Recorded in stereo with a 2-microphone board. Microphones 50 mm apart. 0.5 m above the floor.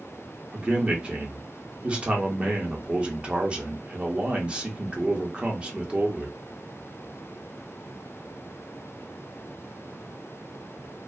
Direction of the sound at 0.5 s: 20° right (ahead or behind).